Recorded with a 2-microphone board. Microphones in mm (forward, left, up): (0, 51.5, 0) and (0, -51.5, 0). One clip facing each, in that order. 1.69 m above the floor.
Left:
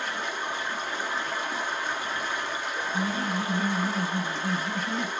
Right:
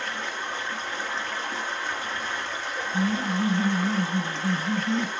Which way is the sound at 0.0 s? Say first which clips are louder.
Left 1 dB; 15° left (ahead or behind).